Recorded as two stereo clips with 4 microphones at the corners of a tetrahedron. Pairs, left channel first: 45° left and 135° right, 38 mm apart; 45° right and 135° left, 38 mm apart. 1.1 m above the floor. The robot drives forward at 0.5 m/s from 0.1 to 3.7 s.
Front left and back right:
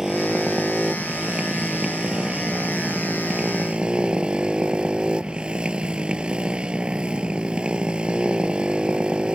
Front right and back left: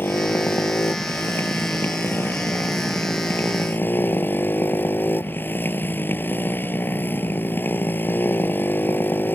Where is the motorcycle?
55° right; by 9.4 s 70° right.